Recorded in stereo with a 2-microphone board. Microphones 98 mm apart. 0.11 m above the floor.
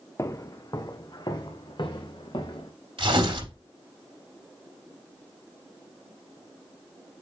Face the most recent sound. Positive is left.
turn(degrees=-65)  # may be behind; listen again after turning